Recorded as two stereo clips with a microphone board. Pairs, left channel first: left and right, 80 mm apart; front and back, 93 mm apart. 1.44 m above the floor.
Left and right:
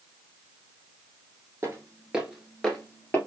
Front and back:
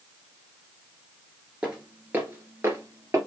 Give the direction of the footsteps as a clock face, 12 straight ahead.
4 o'clock.